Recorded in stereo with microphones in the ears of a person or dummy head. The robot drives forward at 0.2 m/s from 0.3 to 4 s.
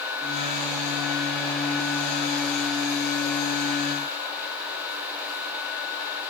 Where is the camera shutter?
I don't hear a camera shutter.